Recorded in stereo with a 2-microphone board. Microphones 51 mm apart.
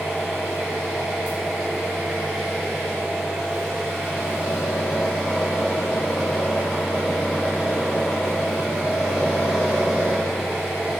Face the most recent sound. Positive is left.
turn(degrees=-15)  # may be behind; listen again after turning